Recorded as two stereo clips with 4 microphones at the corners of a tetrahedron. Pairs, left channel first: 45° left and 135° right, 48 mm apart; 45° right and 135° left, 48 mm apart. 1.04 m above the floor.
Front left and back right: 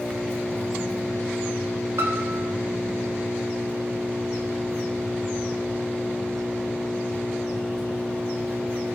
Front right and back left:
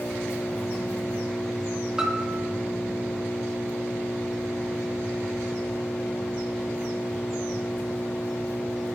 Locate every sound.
0.0 s an engine running: 30° right, 4.5 m
2.0 s a piano: 155° right, 2.5 m